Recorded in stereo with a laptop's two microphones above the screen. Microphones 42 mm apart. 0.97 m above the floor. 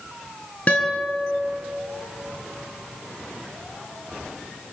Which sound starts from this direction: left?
A guitar, at 0.7 s.